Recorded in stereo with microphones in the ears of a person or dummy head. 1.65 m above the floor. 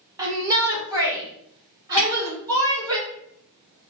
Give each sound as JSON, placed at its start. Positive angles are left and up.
{"t": 0.2, "sound": "a shout", "side_deg": -15, "distance_m": 1.8}
{"t": 2.0, "sound": "a snare drum", "side_deg": 10, "distance_m": 1.8}